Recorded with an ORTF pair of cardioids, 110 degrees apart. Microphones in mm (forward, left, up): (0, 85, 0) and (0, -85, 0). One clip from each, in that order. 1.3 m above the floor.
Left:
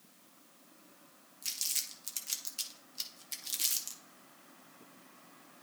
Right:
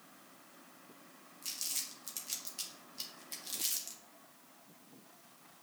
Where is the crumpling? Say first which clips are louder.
Left 4 dB; 25° left, 1.6 m.